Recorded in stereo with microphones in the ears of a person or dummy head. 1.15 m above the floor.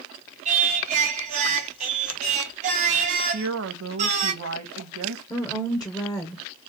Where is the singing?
40° right (ahead or behind), 1.1 m.